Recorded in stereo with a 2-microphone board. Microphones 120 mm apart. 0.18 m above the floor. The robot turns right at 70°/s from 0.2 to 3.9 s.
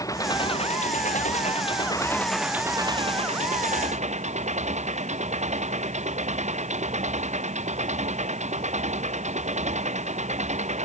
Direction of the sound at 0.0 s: 30° left.